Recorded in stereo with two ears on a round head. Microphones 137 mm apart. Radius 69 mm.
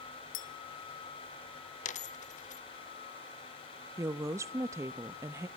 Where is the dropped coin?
50° left (ahead or behind), 0.8 m.